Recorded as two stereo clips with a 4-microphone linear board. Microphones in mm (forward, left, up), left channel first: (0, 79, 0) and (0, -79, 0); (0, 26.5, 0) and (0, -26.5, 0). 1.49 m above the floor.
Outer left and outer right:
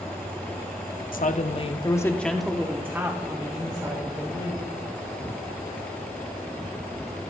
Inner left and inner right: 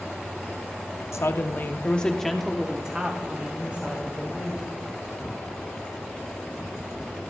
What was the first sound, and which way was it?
A woman speaking, 60° left (ahead or behind).